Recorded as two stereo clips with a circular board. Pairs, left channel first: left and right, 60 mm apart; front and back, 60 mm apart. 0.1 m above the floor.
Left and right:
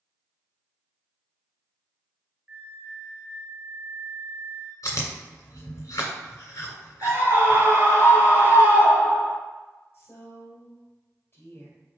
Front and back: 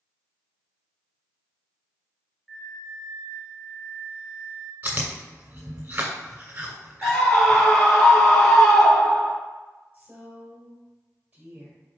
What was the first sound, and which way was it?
A flute, 100° right.